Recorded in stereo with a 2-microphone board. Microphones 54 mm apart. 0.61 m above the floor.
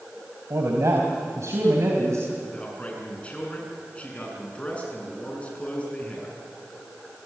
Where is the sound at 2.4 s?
25° left (ahead or behind), 7 m.